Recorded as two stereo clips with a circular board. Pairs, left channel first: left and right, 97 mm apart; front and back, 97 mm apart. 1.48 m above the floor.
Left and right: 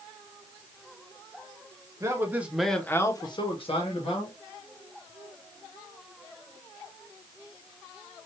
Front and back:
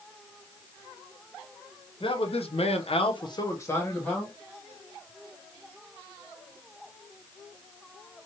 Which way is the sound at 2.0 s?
30° right.